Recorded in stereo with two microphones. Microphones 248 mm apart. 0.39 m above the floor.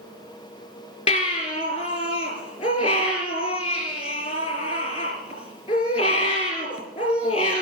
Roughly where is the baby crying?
Left.